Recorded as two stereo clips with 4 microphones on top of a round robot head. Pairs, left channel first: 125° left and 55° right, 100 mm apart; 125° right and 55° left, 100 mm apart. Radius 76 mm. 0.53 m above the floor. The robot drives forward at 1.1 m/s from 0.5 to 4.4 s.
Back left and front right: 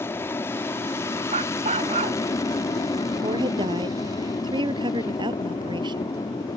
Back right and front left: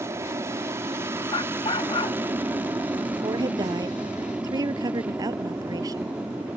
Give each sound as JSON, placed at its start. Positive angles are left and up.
{"t": 0.0, "sound": "an aircraft", "azimuth_deg": 85}
{"t": 1.3, "sound": "a dog barking", "azimuth_deg": -75}
{"t": 3.2, "sound": "a woman speaking", "azimuth_deg": -5}